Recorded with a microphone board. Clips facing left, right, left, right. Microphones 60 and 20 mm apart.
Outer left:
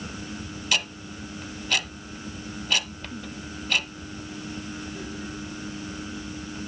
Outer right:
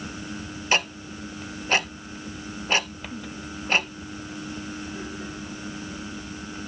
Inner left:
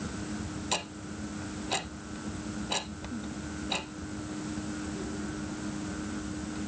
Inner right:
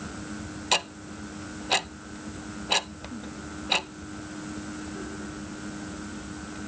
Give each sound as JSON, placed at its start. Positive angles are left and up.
{"t": 0.7, "sound": "ticking", "side_deg": -35, "distance_m": 0.6}